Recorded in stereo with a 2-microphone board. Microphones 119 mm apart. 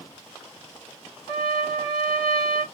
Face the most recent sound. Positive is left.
turn(degrees=60)  # may be behind; listen again after turning